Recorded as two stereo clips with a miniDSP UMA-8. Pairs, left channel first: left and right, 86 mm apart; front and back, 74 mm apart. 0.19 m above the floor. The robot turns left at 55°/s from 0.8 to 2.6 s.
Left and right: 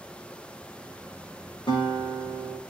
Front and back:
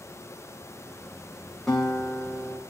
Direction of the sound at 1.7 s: 85° left.